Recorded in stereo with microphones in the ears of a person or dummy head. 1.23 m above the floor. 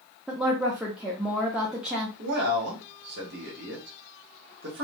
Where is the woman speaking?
5° right (ahead or behind), 0.6 m.